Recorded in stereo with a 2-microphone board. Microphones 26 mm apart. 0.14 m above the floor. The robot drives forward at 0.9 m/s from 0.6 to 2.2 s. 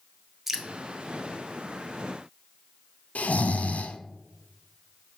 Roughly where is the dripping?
Centre.